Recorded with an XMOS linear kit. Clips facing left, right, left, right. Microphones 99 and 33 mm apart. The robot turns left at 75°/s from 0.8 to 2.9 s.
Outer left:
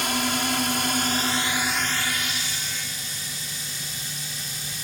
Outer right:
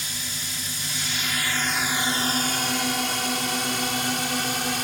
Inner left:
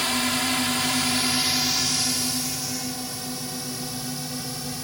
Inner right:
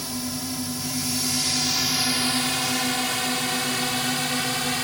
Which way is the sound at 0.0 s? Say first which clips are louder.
Outer left 13 dB, inner left 7 dB; 70° left (ahead or behind).